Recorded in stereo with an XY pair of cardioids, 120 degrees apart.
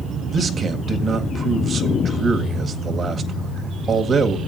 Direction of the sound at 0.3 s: 35° right.